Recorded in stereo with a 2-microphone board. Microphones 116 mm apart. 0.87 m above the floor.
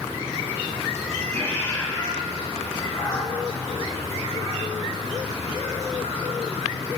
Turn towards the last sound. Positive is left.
turn(degrees=80)